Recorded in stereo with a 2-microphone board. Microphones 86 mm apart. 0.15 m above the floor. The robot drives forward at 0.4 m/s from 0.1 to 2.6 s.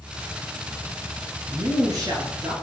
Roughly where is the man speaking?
Right.